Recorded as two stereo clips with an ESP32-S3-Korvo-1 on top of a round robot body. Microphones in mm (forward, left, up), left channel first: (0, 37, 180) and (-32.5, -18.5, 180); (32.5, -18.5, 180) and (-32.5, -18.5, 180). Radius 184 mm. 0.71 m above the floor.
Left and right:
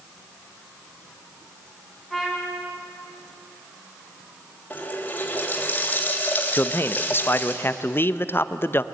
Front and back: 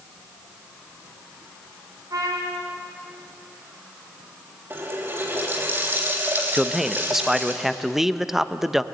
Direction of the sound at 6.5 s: 95° left.